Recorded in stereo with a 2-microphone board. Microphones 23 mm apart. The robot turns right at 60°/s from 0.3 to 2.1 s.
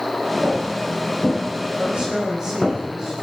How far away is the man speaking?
About 4.5 m.